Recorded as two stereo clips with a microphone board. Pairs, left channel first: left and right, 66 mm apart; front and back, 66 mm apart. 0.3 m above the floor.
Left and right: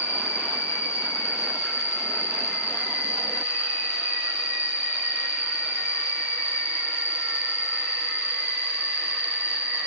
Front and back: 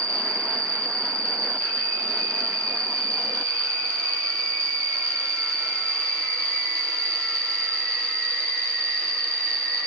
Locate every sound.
0.0 s an insect: 150° right, 2.5 m